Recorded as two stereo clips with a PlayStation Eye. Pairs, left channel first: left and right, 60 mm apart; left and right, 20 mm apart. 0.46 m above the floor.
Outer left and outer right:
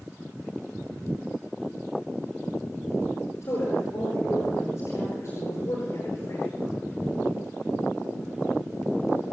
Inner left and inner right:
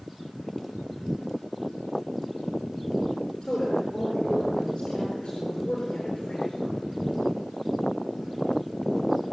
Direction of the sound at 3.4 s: 45° left (ahead or behind).